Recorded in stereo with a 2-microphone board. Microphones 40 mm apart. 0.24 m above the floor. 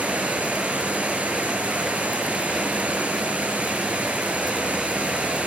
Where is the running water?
40° right (ahead or behind), 3.5 m.